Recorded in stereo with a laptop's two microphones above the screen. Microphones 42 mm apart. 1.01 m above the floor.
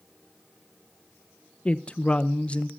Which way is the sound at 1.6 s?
30° left (ahead or behind).